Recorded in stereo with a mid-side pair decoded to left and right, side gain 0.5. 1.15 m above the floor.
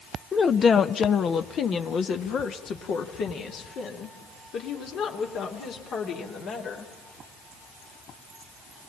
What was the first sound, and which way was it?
A woman speaking, 30° left.